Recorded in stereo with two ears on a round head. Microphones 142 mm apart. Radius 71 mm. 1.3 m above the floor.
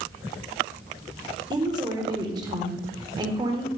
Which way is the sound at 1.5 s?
25° right (ahead or behind).